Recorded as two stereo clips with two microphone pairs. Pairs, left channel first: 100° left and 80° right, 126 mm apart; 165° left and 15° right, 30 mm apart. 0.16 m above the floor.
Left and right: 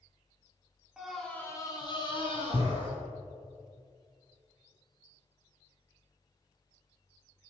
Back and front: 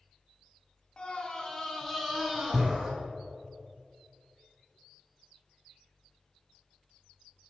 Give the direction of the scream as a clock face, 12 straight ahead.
5 o'clock.